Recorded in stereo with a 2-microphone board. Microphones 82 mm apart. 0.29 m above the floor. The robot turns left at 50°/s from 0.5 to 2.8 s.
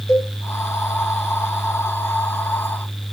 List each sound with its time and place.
0.1 s a cowbell: 40° left (ahead or behind), 0.8 m